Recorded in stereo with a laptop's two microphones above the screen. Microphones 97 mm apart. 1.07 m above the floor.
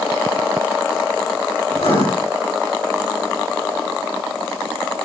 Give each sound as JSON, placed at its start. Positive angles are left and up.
{"t": 1.7, "sound": "writing", "side_deg": 75, "distance_m": 5.0}